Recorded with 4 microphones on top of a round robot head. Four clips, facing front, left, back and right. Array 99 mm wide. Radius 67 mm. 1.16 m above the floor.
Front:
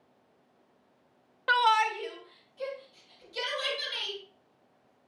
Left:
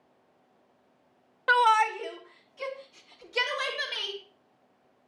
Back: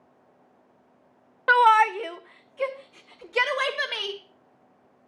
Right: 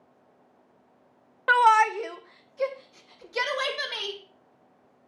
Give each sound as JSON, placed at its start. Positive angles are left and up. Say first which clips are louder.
{"t": 1.5, "sound": "a shout", "louder": "right 3 dB, back 7 dB", "azimuth_deg": -150, "distance_m": 0.6}